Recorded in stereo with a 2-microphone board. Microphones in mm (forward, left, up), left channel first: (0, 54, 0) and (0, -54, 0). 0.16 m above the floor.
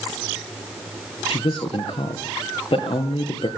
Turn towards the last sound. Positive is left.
turn(degrees=55)  # may be behind; listen again after turning